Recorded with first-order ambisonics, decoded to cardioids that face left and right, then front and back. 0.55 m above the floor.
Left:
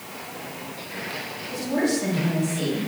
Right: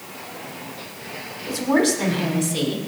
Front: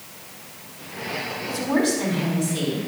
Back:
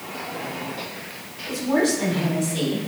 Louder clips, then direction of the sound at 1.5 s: Right 5 dB, back 2 dB; 85° right.